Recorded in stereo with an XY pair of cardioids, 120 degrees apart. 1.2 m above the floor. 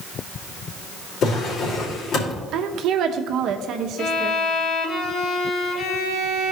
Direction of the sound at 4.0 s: 55° left.